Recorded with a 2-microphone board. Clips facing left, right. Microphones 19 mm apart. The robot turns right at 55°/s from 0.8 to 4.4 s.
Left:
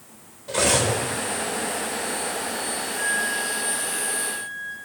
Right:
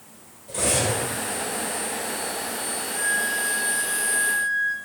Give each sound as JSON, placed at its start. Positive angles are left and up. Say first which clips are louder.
{"t": 0.5, "sound": "cutlery clinking", "louder": "left 3 dB", "side_deg": 50, "distance_m": 2.0}
{"t": 3.0, "sound": "a flute", "louder": "right 1 dB", "azimuth_deg": -170, "distance_m": 1.1}